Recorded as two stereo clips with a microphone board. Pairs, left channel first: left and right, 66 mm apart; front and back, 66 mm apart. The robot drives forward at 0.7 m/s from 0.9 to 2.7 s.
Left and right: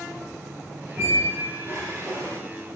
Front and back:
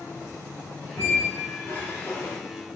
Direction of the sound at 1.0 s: 40° right.